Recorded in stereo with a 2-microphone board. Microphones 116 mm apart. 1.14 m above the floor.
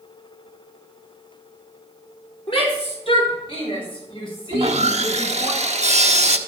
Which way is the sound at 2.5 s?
45° left (ahead or behind).